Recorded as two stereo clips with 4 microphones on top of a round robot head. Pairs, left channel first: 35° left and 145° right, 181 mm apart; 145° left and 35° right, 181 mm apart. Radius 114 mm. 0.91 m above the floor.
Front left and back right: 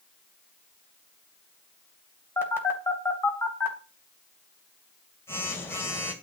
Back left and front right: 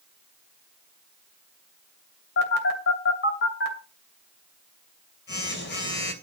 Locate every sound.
2.4 s a phone buzzing: 115° left, 2.5 m